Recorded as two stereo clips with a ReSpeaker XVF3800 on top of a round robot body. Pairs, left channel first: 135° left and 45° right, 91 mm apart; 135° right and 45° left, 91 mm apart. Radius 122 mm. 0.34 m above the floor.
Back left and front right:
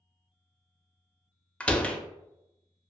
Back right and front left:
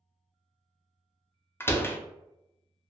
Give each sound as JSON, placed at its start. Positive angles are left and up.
{"t": 1.6, "sound": "a door slam", "azimuth_deg": -165, "distance_m": 0.5}